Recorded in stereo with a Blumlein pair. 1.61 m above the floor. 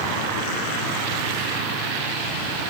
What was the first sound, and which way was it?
Only background noise.